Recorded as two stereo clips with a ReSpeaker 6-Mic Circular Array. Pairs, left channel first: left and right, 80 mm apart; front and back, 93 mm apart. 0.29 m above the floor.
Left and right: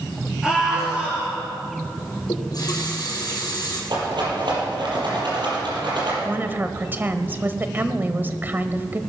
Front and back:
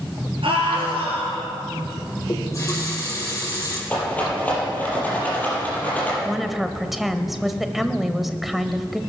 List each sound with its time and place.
0.4 s a scream: 170° right, 5.5 m; by 1.5 s 160° right, 4.5 m
2.3 s a running tap: 55° left, 5 m
3.9 s a rattle: 75° right, 6 m
6.2 s a woman speaking: 95° right, 1.0 m